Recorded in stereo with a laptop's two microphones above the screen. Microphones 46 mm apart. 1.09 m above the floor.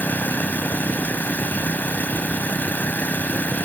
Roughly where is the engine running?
Left.